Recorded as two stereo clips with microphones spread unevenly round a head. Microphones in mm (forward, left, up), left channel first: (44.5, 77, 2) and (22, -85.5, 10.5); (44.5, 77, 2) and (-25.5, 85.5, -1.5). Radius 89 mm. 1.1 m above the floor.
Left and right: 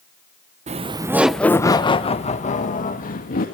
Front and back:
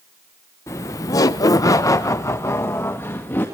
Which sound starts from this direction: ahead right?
Laughter, at 0.7 s.